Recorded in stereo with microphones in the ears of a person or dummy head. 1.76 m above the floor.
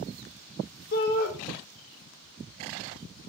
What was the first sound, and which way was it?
A shout, 50° left (ahead or behind).